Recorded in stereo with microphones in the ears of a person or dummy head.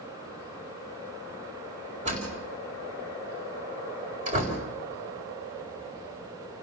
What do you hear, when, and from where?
2.0 s a door slam: 35° right (ahead or behind), 4.5 m